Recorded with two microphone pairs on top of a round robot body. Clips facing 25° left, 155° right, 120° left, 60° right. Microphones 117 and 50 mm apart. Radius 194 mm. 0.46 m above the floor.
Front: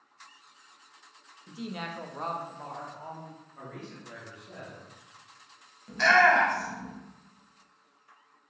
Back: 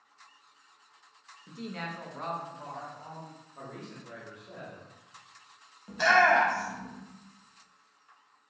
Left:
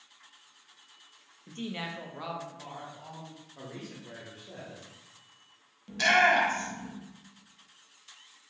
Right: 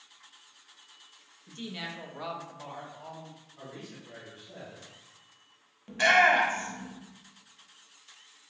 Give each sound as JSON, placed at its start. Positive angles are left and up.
{"t": 1.5, "sound": "a woman speaking", "azimuth_deg": 130, "distance_m": 0.8}
{"t": 3.5, "sound": "a man speaking", "azimuth_deg": 140, "distance_m": 1.2}
{"t": 5.9, "sound": "a shout", "azimuth_deg": -100, "distance_m": 1.1}